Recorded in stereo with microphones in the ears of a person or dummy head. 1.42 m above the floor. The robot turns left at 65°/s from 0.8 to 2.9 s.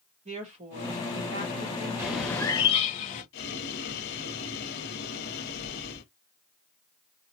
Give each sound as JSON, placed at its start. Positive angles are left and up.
{"t": 0.2, "sound": "a woman speaking", "azimuth_deg": -40, "distance_m": 1.5}
{"t": 2.0, "sound": "a bird", "azimuth_deg": -160, "distance_m": 0.9}
{"t": 3.3, "sound": "boiling", "side_deg": 65, "distance_m": 1.2}